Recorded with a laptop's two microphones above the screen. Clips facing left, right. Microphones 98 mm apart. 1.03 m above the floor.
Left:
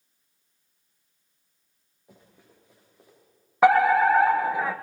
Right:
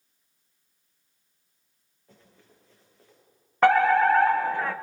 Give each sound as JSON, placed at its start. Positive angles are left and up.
{"t": 2.1, "sound": "running footsteps", "side_deg": 15, "distance_m": 9.5}
{"t": 3.6, "sound": "a fire alarm", "side_deg": 10, "distance_m": 1.1}